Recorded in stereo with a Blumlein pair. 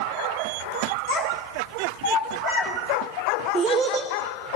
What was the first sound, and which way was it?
A child speaking, 65° left.